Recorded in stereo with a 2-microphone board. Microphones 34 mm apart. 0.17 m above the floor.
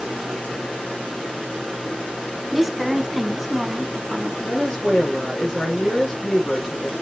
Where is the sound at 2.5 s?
10° right (ahead or behind), 1.1 m.